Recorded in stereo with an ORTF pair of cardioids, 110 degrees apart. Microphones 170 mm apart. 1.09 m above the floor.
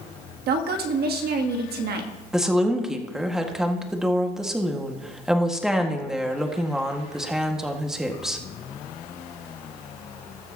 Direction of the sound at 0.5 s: 70° right.